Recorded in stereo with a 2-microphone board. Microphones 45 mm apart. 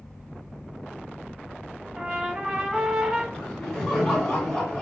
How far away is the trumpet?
About 1.1 m.